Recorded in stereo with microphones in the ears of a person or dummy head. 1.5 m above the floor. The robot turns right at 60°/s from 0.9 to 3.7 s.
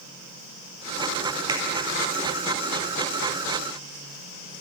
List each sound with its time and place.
1.5 s a finger snap: 25° right (ahead or behind), 5 m; by 1.6 s 15° right (ahead or behind), 5 m